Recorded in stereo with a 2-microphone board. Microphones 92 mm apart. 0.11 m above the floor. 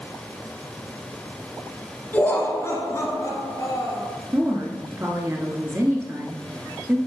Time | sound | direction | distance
2.1 | laughter | 20° left (ahead or behind) | 1.2 m
4.3 | a woman speaking | 30° right (ahead or behind) | 1.4 m